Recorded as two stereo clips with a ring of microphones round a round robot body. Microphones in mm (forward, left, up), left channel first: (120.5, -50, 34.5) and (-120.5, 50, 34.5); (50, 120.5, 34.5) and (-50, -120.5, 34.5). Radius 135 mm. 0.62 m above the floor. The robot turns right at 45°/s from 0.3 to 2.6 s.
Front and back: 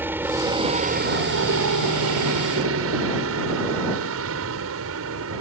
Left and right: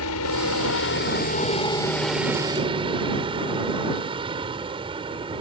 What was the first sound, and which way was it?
A helicopter, 75° left.